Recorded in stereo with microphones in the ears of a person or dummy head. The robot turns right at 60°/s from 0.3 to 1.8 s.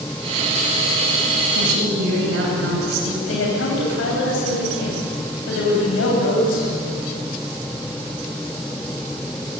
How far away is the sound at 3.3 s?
About 9 m.